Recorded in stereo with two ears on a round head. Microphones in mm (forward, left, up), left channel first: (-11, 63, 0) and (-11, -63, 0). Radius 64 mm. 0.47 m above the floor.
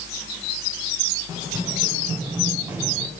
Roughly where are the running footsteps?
Right.